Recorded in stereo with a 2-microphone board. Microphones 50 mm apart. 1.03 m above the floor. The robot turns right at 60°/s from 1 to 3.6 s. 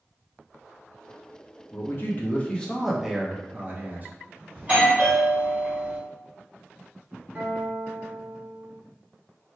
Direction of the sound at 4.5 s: 30° right (ahead or behind).